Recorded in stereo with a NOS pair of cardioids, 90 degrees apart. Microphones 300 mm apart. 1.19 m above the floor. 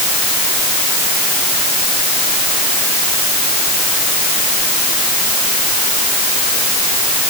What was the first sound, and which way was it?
Only background noise.